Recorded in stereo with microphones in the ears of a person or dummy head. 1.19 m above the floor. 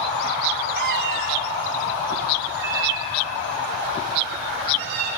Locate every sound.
0.8 s a cat meowing: 60° right (ahead or behind), 1.3 m; by 5.1 s 55° right (ahead or behind), 7.5 m